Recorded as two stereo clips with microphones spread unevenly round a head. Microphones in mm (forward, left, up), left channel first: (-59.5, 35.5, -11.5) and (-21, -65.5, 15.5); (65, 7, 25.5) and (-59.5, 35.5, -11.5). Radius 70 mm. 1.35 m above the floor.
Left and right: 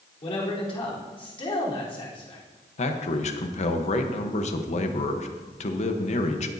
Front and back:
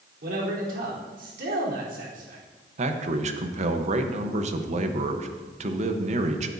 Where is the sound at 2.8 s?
130° left, 1.1 m.